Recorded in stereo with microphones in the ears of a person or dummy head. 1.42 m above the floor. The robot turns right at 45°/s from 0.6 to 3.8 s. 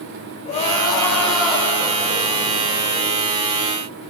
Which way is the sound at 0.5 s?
150° left.